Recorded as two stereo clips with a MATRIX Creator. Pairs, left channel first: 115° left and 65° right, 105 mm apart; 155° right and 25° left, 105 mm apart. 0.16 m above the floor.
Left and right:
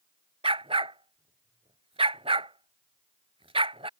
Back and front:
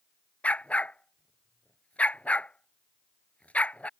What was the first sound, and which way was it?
A dog barking, 80° right.